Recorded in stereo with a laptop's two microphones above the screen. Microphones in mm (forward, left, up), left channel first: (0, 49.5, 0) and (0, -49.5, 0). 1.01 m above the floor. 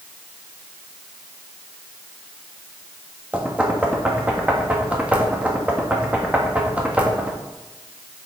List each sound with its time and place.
3.3 s knocking: 15° right (ahead or behind), 1.3 m